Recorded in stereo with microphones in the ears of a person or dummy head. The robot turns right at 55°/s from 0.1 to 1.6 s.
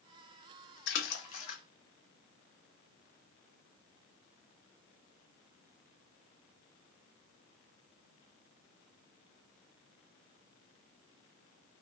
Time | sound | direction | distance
0.9 | a splash | 70° left (ahead or behind) | 0.6 m